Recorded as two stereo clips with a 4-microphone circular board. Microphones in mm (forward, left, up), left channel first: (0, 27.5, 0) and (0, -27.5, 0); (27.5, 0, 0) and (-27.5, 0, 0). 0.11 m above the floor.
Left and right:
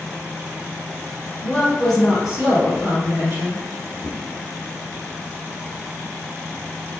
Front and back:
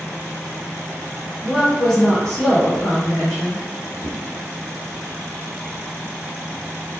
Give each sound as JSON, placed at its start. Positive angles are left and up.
{"t": 1.4, "sound": "a woman speaking", "azimuth_deg": 95, "distance_m": 1.3}
{"t": 4.0, "sound": "a whoosh", "azimuth_deg": -95, "distance_m": 1.8}